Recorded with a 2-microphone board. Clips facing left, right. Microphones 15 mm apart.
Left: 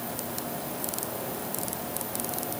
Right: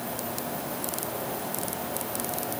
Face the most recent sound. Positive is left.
No sound to turn to.